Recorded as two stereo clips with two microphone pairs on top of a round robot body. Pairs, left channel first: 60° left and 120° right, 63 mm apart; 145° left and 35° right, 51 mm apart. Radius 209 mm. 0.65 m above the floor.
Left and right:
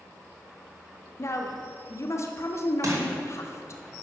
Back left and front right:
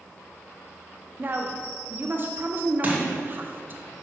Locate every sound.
1.2 s a woman speaking: 20° left, 1.5 m
2.8 s crushing: 95° right, 2.5 m